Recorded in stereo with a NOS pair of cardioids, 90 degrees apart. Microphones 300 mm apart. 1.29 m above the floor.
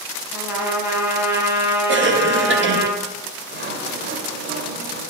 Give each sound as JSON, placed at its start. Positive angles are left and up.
{"t": 0.3, "sound": "a trumpet", "azimuth_deg": -5, "distance_m": 3.5}
{"t": 1.9, "sound": "a cough", "azimuth_deg": -40, "distance_m": 1.6}
{"t": 3.5, "sound": "sawing", "azimuth_deg": -40, "distance_m": 2.5}